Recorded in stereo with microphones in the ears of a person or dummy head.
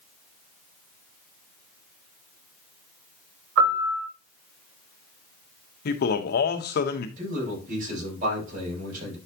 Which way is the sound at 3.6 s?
85° right.